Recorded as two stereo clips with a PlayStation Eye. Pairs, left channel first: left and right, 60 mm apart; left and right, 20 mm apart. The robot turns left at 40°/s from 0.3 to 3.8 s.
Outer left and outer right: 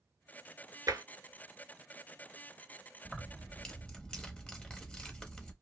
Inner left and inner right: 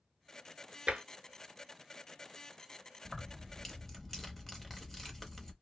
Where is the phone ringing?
No phone ringing in this recording.